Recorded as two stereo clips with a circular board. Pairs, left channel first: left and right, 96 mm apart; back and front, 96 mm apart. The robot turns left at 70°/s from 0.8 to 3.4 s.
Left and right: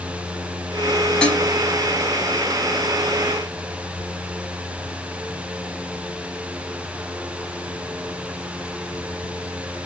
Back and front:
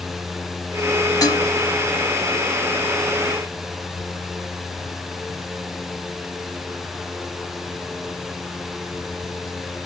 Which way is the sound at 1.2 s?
165° left.